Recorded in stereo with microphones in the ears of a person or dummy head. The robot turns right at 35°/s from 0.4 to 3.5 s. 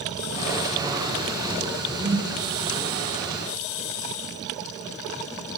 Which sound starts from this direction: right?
A whoosh, at 2.0 s.